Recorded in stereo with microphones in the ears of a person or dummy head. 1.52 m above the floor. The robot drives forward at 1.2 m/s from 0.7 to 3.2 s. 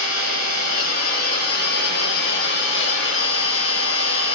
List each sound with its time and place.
0.0 s an engine running: 50° left (ahead or behind), 8.5 m; by 4.4 s 70° left (ahead or behind), 7 m